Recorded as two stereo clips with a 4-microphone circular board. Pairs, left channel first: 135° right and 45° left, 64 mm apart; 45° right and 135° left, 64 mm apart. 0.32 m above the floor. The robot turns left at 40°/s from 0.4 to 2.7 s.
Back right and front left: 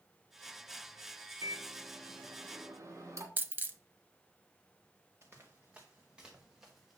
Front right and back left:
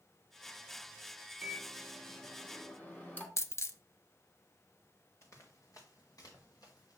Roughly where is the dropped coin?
Ahead.